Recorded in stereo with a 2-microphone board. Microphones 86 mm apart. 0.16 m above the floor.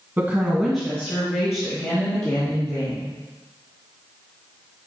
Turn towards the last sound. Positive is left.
turn(degrees=35)  # may be behind; listen again after turning